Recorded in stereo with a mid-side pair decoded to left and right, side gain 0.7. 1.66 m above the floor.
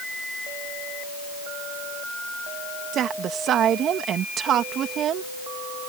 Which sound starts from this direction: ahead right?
A woman speaking, at 2.9 s.